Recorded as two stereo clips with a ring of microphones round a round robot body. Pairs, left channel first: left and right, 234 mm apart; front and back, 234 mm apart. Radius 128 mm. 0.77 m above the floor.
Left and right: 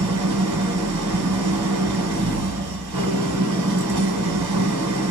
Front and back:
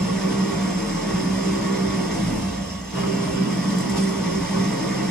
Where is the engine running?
90° right, 1.6 m.